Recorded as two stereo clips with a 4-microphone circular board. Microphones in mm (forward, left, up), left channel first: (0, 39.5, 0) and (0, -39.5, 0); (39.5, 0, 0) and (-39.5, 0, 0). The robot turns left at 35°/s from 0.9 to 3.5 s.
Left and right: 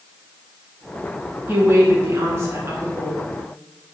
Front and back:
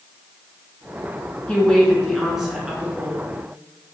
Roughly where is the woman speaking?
Ahead right.